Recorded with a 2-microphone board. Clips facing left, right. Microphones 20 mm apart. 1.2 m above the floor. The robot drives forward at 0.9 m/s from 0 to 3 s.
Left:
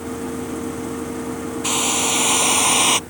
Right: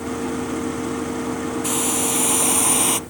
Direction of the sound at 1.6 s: 30° left (ahead or behind).